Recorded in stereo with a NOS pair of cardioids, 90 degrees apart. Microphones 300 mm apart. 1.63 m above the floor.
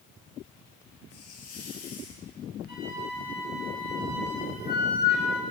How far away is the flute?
About 6.5 m.